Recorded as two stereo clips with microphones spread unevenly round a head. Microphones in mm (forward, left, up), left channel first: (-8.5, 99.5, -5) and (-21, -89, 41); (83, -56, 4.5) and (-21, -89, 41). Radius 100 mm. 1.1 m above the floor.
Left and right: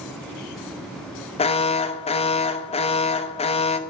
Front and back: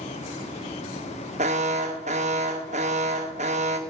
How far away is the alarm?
About 0.8 m.